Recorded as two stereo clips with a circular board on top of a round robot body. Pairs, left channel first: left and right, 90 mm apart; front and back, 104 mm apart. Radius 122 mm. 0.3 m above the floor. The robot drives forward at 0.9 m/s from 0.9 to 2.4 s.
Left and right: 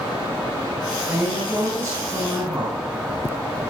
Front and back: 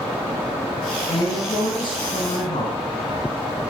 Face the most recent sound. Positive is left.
turn(degrees=-40)